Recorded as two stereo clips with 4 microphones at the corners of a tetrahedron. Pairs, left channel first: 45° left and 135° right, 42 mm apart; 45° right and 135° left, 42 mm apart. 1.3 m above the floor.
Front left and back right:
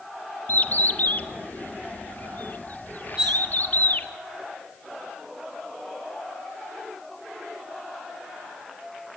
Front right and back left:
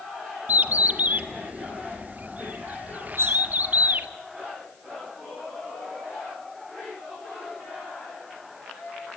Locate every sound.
0.5 s a bird: 90° left, 1.5 m
3.2 s cutlery clinking: 150° left, 5 m